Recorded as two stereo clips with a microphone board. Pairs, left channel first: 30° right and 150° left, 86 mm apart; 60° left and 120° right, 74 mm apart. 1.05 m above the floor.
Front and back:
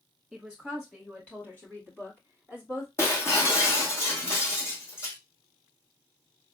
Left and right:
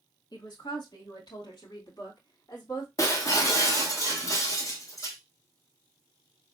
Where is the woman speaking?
60° left, 2 m; by 2.9 s 25° left, 2.5 m.